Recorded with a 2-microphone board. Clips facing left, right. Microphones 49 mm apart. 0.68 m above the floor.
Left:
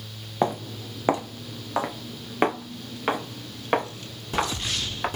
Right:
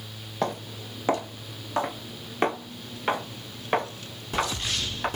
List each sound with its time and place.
0.4 s footsteps: 20° left (ahead or behind), 1.0 m